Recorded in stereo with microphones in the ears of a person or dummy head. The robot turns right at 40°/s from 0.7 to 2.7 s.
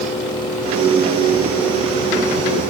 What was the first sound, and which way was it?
Only background noise.